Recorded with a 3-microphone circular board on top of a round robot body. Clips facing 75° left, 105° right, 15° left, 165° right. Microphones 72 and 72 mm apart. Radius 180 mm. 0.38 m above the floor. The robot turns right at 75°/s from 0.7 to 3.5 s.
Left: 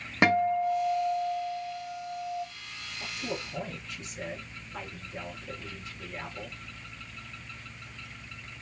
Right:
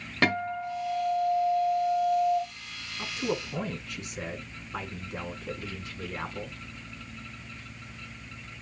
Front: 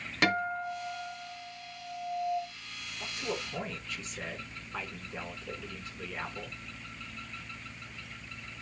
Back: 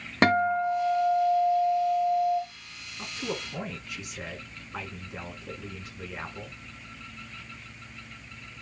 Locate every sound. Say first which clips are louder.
0.2 s a guitar: left 4 dB, back 8 dB; 145° left, 2 m; by 2.4 s 85° right, 2 m
3.0 s a man speaking: right 5 dB, back 2 dB; 120° right, 6 m; by 6.6 s 80° right, 6 m